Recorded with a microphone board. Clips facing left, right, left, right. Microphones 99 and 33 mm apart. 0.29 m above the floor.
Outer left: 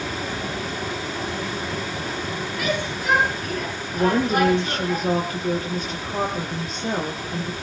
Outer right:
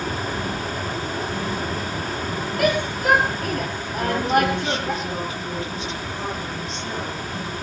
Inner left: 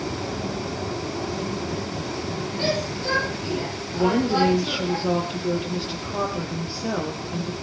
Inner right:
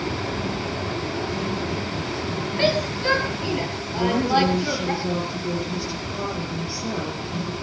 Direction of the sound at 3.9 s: 45° left (ahead or behind).